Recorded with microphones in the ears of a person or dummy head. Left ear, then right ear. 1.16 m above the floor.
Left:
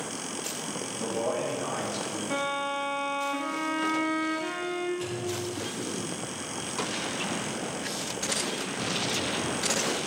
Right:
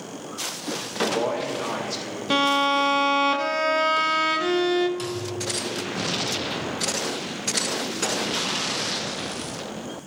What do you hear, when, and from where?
0.8 s a man speaking: 55° right (ahead or behind), 2.5 m; by 2.2 s 70° right (ahead or behind), 3 m
2.3 s a violin: 85° right, 0.6 m
5.0 s a thud: 65° right (ahead or behind), 3.5 m